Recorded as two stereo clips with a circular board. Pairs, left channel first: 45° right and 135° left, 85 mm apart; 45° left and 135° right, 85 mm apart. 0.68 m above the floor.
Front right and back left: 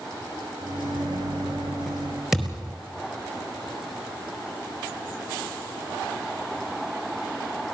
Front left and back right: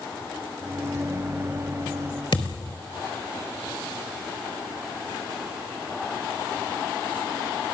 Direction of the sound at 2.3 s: 50° left.